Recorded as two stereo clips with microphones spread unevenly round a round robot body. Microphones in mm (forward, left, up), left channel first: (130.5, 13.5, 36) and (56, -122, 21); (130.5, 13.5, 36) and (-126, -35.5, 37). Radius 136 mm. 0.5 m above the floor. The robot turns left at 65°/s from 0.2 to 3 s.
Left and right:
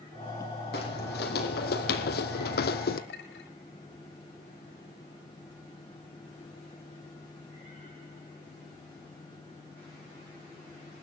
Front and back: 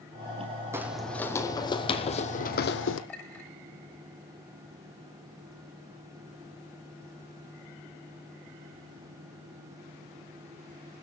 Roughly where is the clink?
Left.